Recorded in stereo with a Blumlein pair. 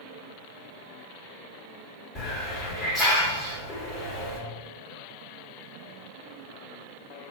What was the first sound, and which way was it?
A hiss, 10° left.